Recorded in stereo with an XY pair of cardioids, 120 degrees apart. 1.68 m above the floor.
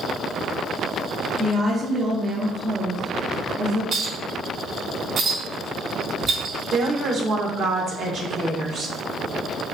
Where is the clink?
45° right, 1.8 m.